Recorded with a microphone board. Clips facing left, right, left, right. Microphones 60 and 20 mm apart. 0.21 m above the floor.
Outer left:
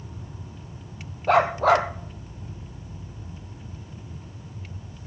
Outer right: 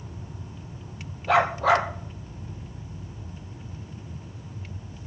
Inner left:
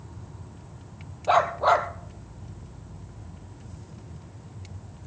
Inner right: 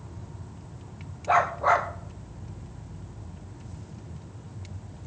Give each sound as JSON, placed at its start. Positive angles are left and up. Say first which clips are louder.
{"t": 1.3, "sound": "a dog barking", "louder": "outer left 2 dB, inner left 1 dB", "side_deg": 50, "distance_m": 2.5}